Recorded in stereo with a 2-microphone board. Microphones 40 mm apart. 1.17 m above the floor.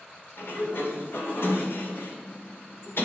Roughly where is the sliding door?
Left.